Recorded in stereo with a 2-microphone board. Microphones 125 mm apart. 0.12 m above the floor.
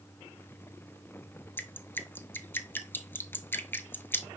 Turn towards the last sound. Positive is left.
turn(degrees=15)  # may be behind; listen again after turning